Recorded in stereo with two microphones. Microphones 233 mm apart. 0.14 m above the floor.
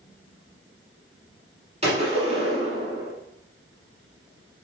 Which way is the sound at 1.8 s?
25° right (ahead or behind).